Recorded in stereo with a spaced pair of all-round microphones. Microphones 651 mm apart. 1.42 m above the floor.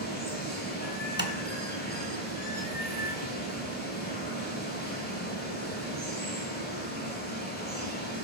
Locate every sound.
0.0 s running water: 15° left (ahead or behind), 9.5 m
1.2 s tapping: 15° left (ahead or behind), 1.8 m